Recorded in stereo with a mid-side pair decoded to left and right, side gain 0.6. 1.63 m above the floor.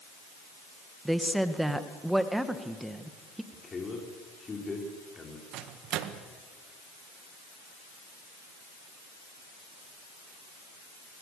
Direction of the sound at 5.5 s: 65° right.